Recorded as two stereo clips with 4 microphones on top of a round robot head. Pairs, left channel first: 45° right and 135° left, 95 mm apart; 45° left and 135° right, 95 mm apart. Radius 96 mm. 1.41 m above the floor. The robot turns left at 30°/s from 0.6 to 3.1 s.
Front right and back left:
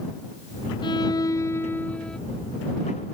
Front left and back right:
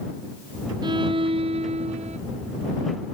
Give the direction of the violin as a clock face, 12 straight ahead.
3 o'clock.